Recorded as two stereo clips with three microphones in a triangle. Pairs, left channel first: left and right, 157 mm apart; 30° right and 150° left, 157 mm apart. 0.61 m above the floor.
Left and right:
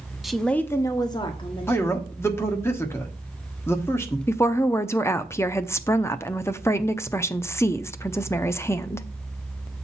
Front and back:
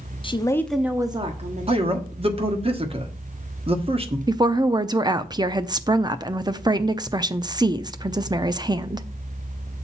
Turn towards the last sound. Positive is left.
turn(degrees=140)